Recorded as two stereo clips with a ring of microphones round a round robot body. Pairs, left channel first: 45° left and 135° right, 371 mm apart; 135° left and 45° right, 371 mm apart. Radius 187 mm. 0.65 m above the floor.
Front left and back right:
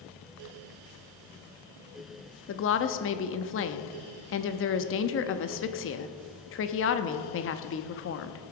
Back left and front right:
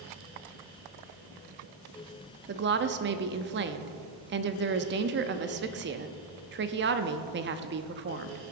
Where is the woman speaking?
5° left, 0.7 m.